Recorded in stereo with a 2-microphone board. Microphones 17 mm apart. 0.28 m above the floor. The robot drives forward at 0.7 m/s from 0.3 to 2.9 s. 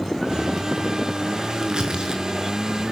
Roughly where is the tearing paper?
Right.